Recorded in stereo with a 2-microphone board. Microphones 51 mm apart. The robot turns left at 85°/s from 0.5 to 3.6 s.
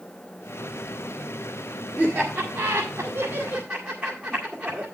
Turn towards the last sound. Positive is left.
turn(degrees=-10)  # may be behind; listen again after turning